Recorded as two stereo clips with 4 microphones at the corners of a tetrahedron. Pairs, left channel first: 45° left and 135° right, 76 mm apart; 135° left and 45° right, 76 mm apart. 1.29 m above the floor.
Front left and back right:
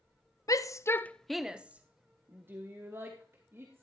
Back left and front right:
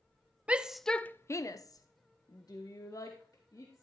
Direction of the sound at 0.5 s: 20° left.